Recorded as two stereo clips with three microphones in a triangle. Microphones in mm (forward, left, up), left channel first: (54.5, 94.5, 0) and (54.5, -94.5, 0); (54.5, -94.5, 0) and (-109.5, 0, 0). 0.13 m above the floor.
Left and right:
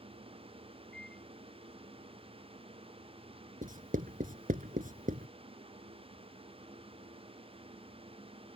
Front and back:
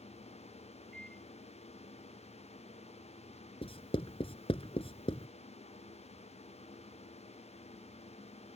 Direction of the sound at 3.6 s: 80° right.